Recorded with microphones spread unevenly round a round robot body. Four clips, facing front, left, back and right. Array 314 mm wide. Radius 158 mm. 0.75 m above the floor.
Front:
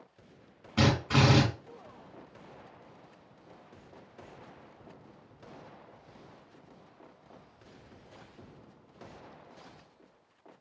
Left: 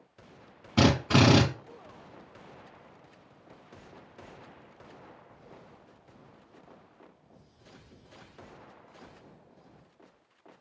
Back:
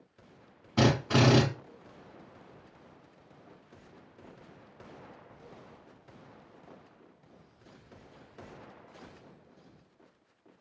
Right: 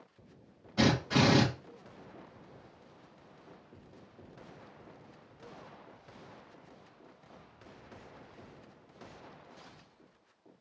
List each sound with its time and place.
0.8 s a drill: 90° left, 3 m